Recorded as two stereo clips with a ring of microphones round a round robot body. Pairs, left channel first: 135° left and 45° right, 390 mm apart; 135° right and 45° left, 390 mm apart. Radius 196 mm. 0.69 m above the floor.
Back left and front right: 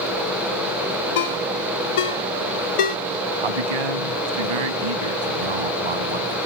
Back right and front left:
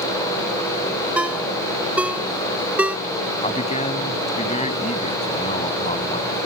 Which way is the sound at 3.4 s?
60° right.